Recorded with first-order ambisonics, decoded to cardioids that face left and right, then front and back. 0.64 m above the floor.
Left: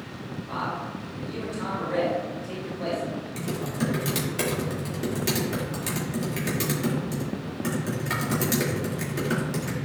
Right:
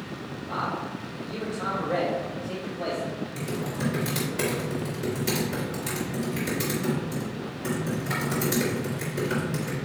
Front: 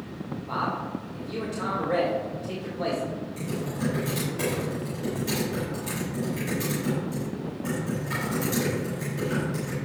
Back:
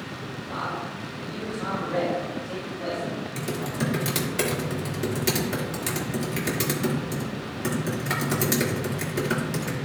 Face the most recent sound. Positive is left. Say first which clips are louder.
# left 2 dB, back 3 dB
turn(degrees=155)